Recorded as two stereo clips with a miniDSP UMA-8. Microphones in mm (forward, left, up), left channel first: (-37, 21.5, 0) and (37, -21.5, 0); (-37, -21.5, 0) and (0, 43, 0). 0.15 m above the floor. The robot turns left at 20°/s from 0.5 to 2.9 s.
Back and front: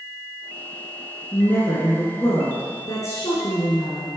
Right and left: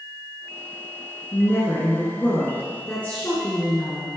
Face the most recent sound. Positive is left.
turn(degrees=180)